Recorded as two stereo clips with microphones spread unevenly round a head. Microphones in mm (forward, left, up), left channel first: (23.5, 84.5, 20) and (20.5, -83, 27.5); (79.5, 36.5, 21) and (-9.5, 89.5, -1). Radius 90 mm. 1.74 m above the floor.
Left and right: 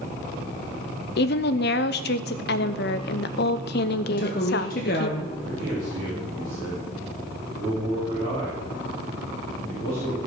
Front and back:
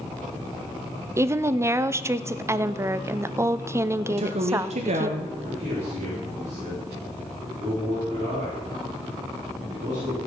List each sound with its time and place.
1.2 s a woman speaking: 80° left, 0.6 m
4.1 s a woman speaking: 135° left, 1.1 m
5.4 s a man speaking: 160° right, 4.5 m